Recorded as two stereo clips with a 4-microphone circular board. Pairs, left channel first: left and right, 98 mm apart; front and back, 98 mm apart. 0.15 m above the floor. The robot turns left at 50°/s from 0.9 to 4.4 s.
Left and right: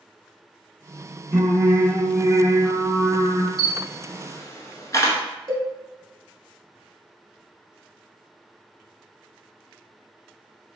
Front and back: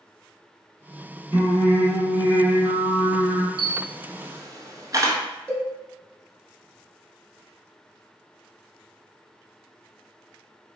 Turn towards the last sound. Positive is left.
turn(degrees=-65)